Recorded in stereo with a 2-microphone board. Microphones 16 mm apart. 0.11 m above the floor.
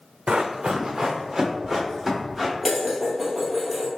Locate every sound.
0.3 s running footsteps: 80° right, 0.6 m; by 2.5 s 5° right (ahead or behind), 3 m
2.6 s dishes clattering: centre (ahead or behind), 1.7 m